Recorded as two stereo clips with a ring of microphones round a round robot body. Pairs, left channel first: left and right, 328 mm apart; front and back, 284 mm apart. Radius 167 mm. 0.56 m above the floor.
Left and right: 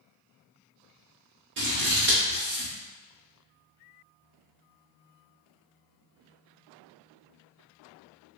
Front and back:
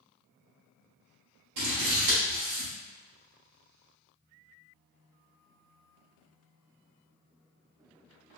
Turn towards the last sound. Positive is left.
turn(degrees=-150)